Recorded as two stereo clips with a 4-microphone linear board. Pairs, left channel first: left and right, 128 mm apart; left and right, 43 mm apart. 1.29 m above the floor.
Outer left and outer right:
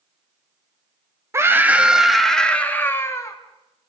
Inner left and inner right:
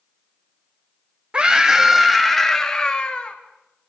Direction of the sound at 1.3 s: 25° right (ahead or behind).